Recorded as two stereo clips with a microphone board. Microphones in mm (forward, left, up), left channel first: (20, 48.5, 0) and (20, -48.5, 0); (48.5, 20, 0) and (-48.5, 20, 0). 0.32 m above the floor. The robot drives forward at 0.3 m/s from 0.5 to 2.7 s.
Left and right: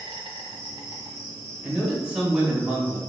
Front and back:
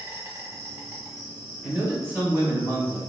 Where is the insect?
120° right, 0.8 m; by 3.1 s 150° right, 1.2 m.